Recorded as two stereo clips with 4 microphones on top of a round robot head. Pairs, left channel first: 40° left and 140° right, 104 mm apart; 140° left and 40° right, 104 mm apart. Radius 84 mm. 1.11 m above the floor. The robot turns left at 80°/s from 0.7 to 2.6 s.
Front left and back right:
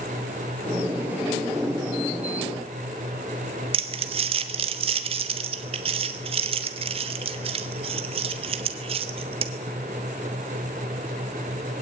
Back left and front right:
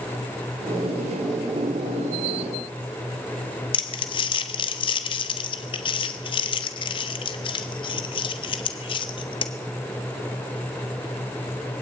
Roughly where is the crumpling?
Behind.